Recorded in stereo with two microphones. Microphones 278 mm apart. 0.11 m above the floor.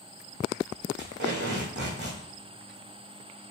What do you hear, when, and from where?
1.0 s tape being pulled: 40° right (ahead or behind), 2.0 m